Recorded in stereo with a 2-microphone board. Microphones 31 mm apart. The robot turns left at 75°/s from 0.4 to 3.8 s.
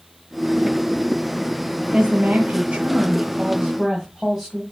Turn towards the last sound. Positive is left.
turn(degrees=-170)